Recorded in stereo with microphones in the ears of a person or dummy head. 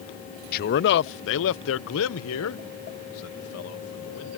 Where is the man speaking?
50° left (ahead or behind); by 4.4 s 85° left.